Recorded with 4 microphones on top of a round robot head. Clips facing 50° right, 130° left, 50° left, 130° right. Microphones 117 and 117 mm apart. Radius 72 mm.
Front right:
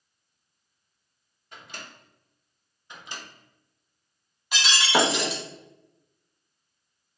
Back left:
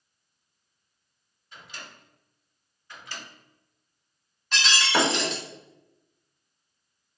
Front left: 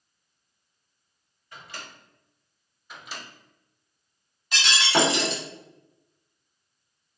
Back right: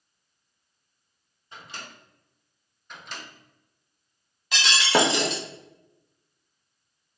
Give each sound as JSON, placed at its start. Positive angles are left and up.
{"t": 1.5, "sound": "a microwave", "azimuth_deg": -70, "distance_m": 0.8}
{"t": 2.9, "sound": "a microwave", "azimuth_deg": -25, "distance_m": 0.6}
{"t": 4.5, "sound": "breaking glass", "azimuth_deg": -130, "distance_m": 0.7}